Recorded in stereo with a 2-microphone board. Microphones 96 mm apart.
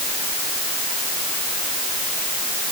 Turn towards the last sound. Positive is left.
No sound to turn to.